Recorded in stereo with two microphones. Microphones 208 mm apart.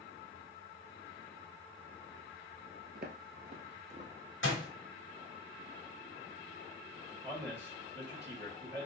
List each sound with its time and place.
3.0 s footsteps: 50° right (ahead or behind), 0.8 m; by 4.1 s 30° right (ahead or behind), 1.1 m
4.4 s a door slam: 60° left (ahead or behind), 1.1 m
7.2 s a man speaking: 50° right (ahead or behind), 1.9 m